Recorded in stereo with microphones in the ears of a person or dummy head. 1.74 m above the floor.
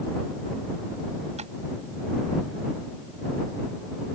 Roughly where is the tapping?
Right.